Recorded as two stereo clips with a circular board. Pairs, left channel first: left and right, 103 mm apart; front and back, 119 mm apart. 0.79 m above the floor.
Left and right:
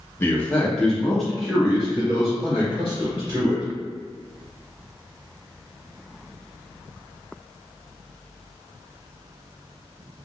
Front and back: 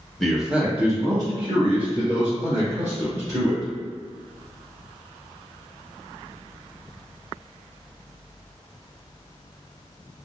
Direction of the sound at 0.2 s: 80° left.